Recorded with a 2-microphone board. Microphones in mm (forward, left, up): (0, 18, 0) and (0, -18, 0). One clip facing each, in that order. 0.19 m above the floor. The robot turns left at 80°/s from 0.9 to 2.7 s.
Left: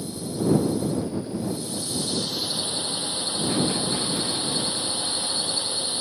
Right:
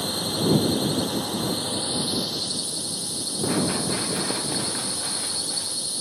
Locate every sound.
0.0 s a drone: 65° right; by 6.0 s 150° left
3.4 s running footsteps: 15° right (ahead or behind); by 5.8 s 35° right (ahead or behind)